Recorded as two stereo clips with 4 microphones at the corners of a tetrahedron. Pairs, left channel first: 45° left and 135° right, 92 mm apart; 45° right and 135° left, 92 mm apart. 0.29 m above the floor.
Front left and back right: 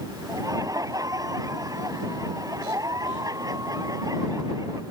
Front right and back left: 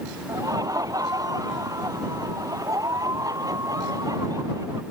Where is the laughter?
Straight behind.